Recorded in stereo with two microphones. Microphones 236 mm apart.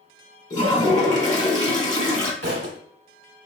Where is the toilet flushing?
30° left (ahead or behind), 1.0 m.